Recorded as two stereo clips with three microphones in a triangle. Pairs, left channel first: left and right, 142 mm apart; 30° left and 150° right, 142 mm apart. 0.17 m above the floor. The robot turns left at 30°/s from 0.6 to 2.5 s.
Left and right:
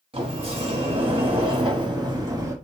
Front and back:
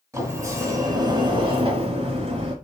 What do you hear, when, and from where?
0.1 s a sliding door: 90° right, 1.2 m; by 2.5 s 150° right, 1.2 m